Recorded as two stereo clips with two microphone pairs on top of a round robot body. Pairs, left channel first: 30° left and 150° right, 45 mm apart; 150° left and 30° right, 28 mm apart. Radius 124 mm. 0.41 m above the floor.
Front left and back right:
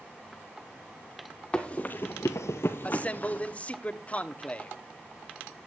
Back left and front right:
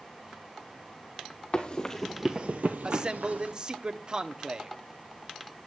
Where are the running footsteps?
100° left, 1.1 m; by 3.5 s 30° right, 1.6 m.